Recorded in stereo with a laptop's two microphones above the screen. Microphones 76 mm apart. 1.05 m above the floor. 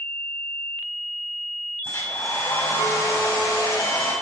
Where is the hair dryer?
45° left (ahead or behind), 5.5 m.